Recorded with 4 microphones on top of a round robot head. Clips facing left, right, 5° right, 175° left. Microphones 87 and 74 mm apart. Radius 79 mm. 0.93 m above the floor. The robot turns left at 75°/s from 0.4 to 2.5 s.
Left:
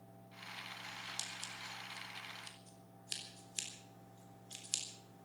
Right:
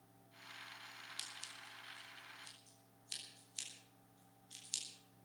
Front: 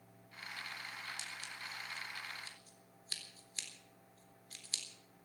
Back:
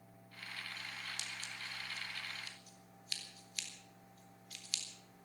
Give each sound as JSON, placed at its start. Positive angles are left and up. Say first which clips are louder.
{"t": 1.2, "sound": "scissors", "louder": "left 6 dB, even", "azimuth_deg": 150, "distance_m": 3.5}